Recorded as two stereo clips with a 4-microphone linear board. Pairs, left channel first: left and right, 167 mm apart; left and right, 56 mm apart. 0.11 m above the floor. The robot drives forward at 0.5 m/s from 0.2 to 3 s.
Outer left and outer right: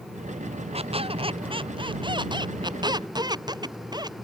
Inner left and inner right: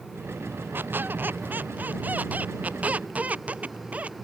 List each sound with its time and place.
0.7 s a squeak: 35° right (ahead or behind); by 4.1 s 25° right (ahead or behind)